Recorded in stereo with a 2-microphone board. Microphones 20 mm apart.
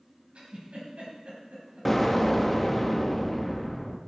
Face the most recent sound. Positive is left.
turn(degrees=5)  # may be behind; listen again after turning